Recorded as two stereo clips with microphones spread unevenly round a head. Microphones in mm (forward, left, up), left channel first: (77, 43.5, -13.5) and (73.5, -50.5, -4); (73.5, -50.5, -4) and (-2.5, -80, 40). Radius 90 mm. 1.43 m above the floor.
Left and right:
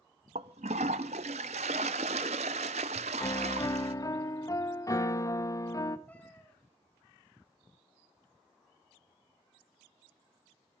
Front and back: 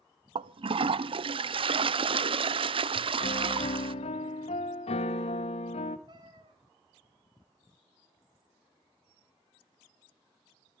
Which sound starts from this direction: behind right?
A toilet flushing, at 0.3 s.